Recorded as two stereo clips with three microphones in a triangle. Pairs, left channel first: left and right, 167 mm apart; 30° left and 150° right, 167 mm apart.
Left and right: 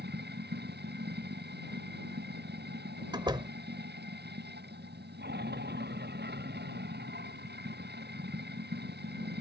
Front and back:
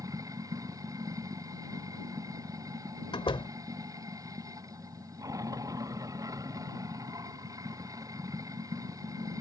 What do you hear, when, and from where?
0.0 s running water: 80° right
3.1 s a door slam: 30° right